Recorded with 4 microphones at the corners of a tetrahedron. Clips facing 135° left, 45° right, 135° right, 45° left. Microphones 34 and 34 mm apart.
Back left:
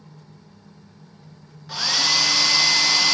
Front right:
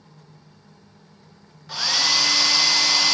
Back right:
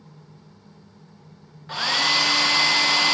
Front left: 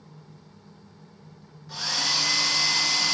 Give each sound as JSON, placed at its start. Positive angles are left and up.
{"t": 1.7, "sound": "a hair dryer", "azimuth_deg": -135, "distance_m": 0.5}